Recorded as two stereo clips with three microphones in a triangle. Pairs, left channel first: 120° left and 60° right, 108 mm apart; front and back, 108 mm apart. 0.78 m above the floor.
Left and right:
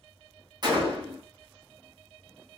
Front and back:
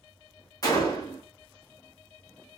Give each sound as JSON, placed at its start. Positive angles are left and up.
{"t": 0.6, "sound": "a gunshot", "azimuth_deg": -40, "distance_m": 1.3}